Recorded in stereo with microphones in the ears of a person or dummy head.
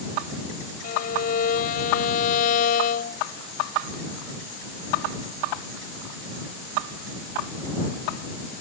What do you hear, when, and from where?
0.8 s a violin: 50° left (ahead or behind)